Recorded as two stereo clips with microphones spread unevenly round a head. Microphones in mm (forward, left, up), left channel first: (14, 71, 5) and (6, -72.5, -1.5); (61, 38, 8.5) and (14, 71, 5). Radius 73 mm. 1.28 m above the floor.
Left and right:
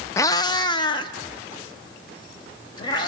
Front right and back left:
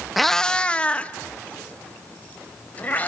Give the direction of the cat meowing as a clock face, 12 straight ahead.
10 o'clock.